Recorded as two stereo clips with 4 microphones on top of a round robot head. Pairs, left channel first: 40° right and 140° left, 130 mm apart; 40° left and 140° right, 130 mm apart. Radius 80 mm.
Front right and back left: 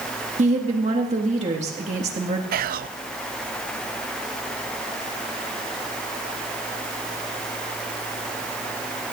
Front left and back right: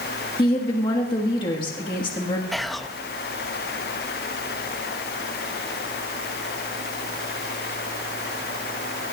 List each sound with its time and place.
0.4 s a woman speaking: 100° left, 1.7 m
2.5 s whispering: 130° left, 0.6 m